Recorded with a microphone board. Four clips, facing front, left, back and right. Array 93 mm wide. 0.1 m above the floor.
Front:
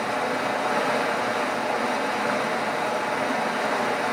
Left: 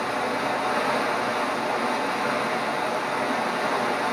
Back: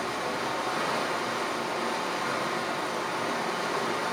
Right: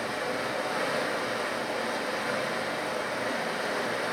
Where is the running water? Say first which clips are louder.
Left 6 dB, front 5 dB; 35° left, 9 m.